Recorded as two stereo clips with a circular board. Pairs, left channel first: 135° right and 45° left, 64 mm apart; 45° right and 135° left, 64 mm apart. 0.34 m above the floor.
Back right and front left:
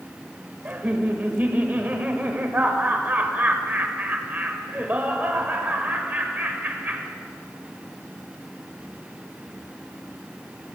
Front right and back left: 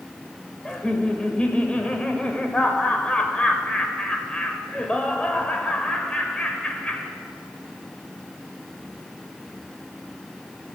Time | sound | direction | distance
0.7 | laughter | 15° left | 1.1 m